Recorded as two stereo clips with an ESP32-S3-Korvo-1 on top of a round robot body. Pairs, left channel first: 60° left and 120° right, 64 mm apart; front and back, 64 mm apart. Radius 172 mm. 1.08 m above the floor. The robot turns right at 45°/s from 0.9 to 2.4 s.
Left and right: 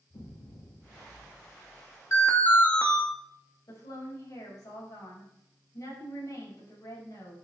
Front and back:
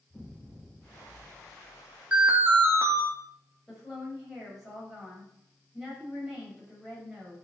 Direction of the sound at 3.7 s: 95° left.